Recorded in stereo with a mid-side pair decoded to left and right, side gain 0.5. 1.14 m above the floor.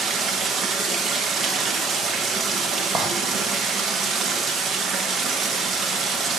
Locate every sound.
0.0 s running water: 55° right, 1.1 m
3.0 s a clink: 45° right, 1.6 m